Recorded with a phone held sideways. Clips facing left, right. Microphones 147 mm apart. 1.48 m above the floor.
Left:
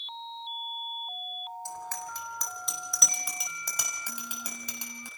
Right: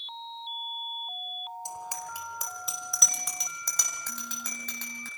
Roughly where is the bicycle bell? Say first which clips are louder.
Even; centre.